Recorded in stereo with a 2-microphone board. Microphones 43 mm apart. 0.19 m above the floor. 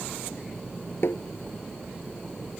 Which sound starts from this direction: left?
Tapping, at 1.0 s.